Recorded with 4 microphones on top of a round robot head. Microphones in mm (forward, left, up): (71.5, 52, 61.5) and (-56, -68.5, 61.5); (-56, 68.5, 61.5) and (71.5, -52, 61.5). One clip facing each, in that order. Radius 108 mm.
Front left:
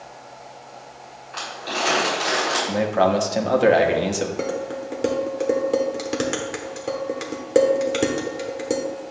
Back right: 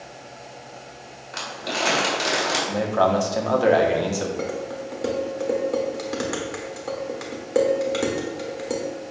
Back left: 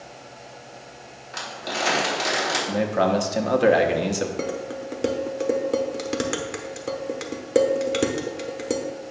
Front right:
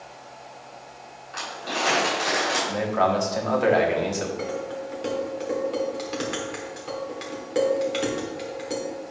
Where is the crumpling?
175° right, 3.5 m.